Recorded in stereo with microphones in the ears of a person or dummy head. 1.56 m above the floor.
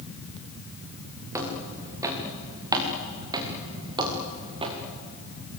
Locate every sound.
1.3 s footsteps: 10° right (ahead or behind), 7 m; by 4.8 s 25° right (ahead or behind), 5.5 m